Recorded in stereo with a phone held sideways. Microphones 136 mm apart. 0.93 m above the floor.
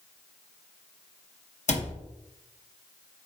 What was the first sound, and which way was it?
A cupboard door, 60° left (ahead or behind).